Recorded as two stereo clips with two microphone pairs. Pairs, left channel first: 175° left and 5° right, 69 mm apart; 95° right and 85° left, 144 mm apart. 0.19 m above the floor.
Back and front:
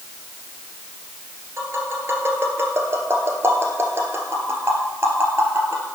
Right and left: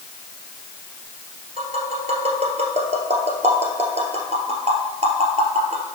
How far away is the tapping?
About 1.9 m.